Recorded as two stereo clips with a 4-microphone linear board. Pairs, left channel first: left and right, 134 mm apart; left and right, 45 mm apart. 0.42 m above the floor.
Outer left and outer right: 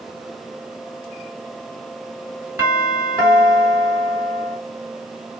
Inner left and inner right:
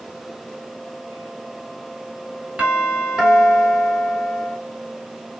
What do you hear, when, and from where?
2.6 s a doorbell: 15° right (ahead or behind), 1.9 m